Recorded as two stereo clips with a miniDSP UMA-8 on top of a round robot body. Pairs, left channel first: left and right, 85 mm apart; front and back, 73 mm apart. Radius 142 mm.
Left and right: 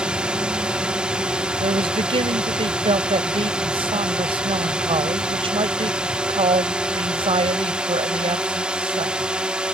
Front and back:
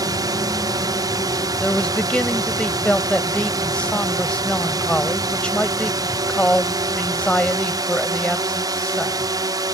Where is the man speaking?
75° right.